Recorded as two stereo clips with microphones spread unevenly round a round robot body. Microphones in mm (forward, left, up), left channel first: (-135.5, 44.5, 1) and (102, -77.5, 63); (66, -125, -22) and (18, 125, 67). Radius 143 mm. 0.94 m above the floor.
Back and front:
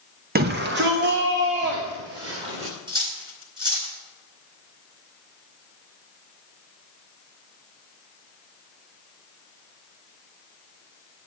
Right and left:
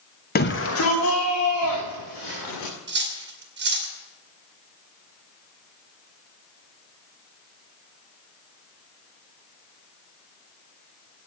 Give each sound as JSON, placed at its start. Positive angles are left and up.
{"t": 0.3, "sound": "a shout", "azimuth_deg": -90, "distance_m": 0.7}
{"t": 2.9, "sound": "cutlery clinking", "azimuth_deg": 50, "distance_m": 2.5}